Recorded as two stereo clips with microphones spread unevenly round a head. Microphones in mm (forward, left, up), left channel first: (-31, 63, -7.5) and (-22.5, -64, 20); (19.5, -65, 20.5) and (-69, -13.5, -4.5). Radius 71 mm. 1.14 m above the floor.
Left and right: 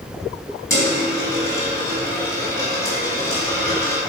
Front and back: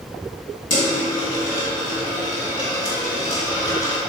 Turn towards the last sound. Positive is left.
turn(degrees=20)